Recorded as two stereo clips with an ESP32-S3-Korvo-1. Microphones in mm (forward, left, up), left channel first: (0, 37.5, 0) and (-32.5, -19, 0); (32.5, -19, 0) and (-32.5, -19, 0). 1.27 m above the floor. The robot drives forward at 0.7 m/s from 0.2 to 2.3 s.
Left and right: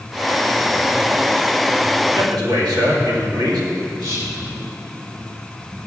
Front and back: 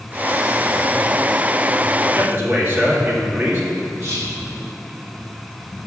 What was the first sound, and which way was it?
A man speaking, 125° right.